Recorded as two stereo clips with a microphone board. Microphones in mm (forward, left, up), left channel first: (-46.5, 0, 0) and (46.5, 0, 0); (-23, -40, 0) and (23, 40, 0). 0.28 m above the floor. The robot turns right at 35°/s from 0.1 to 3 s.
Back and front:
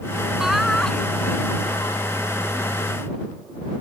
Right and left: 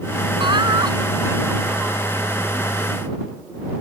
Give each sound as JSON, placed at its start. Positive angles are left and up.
{"t": 0.4, "sound": "laughter", "azimuth_deg": 80}